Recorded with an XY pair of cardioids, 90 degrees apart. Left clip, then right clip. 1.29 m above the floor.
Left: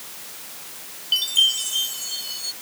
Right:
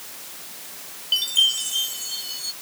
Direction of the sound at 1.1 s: Straight ahead.